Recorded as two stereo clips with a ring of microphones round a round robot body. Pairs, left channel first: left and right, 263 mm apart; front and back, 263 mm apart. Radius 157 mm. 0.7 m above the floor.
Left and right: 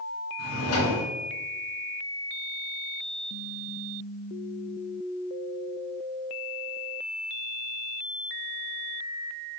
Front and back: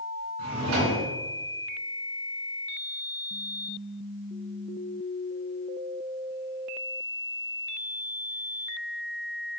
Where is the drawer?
135° left, 2.5 m.